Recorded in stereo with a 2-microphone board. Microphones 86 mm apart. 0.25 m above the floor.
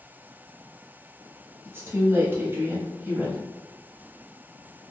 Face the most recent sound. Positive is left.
turn(degrees=-25)  # may be behind; listen again after turning